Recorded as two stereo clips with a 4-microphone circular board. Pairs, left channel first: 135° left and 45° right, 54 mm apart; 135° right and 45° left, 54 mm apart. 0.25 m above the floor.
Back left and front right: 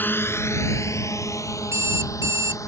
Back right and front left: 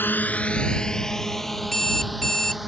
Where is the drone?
Straight behind; by 2.7 s 135° left.